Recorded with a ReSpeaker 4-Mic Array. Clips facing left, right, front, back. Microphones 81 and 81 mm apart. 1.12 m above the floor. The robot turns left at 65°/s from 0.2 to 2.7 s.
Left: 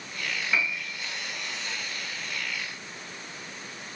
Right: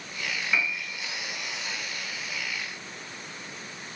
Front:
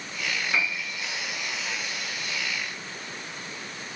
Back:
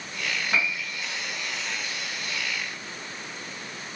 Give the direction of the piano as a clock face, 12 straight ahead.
6 o'clock.